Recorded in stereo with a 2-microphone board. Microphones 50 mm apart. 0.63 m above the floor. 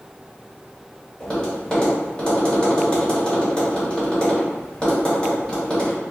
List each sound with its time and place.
1.2 s tapping: 15° left (ahead or behind), 1.7 m